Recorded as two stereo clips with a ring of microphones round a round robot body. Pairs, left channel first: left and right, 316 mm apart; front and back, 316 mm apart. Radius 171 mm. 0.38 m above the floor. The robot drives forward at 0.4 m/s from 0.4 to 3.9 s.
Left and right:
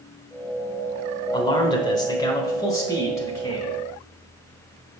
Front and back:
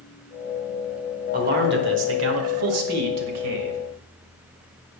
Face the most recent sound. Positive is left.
turn(degrees=170)